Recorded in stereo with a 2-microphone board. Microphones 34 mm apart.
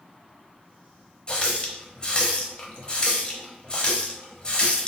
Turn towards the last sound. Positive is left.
turn(degrees=30)  # may be behind; listen again after turning